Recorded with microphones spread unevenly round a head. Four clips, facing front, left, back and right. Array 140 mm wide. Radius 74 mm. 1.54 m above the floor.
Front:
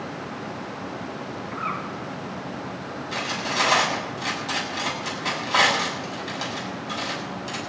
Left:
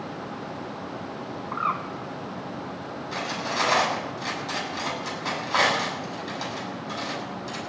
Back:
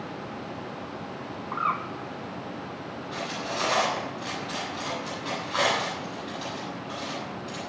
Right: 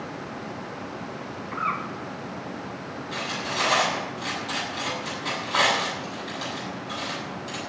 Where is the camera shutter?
I don't hear a camera shutter.